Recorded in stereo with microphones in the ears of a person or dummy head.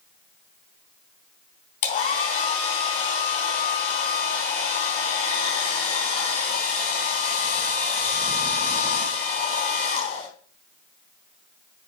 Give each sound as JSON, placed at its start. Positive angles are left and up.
{"t": 1.8, "sound": "a hair dryer", "side_deg": 50, "distance_m": 3.5}